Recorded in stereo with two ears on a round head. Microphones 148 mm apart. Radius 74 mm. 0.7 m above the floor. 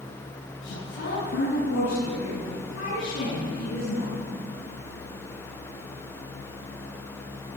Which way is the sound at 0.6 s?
80° left.